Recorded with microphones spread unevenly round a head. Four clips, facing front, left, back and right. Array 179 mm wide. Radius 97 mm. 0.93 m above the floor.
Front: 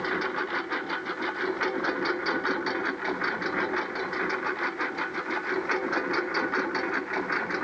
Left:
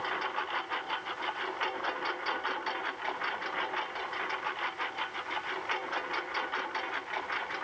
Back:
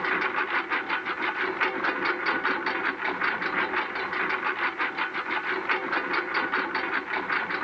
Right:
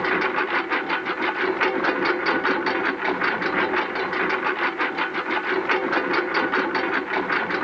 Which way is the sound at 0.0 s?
90° right.